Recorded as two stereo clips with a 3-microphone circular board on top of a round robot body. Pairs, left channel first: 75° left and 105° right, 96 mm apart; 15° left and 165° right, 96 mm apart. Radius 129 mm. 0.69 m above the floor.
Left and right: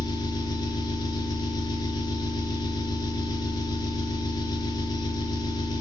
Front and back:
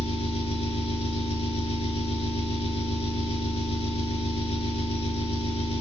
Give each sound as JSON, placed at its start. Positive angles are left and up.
{"t": 0.0, "sound": "an engine running", "azimuth_deg": 30, "distance_m": 3.5}